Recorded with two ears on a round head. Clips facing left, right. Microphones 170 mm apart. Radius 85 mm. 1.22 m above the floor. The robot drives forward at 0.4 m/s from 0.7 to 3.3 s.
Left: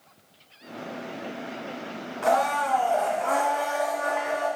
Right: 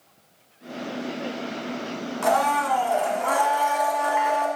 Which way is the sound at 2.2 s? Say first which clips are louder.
Right 1 dB; 55° right (ahead or behind).